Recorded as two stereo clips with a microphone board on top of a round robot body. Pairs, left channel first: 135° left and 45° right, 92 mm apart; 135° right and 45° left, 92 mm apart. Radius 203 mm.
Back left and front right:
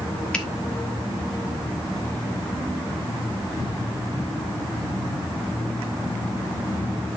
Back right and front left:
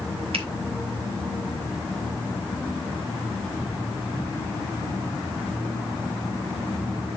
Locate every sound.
0.3 s a finger snap: 55° left, 2.5 m